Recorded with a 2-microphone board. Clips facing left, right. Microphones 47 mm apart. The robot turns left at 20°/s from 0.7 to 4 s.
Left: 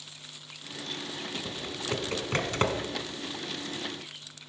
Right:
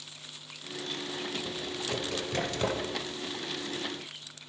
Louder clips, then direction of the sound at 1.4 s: Left 1 dB; 20° left (ahead or behind).